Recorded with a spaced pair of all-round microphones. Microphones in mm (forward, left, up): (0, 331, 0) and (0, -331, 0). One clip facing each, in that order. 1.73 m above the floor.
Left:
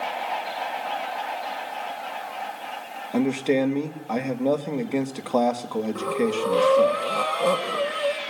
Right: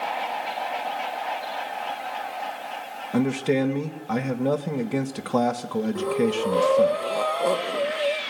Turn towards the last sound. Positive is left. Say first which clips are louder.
# right 2 dB
turn(degrees=35)  # may be behind; listen again after turning